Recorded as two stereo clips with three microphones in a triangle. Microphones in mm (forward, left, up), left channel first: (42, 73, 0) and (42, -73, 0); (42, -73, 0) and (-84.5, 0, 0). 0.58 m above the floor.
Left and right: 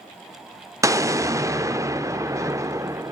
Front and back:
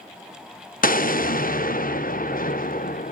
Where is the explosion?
20° right, 0.5 m.